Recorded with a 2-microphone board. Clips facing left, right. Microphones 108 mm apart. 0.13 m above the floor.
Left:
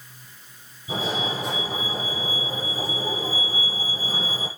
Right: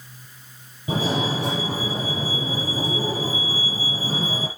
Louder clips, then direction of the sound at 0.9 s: Right 4 dB; 75° right (ahead or behind).